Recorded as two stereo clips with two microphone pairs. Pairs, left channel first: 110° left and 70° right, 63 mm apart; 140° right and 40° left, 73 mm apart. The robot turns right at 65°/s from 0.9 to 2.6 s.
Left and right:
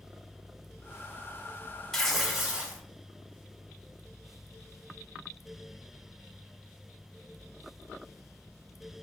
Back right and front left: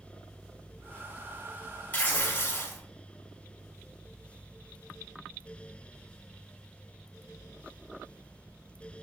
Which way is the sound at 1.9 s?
Straight behind.